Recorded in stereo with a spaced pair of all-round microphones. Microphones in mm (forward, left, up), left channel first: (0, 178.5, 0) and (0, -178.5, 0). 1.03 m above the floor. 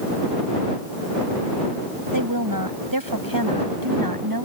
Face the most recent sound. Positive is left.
turn(degrees=-85)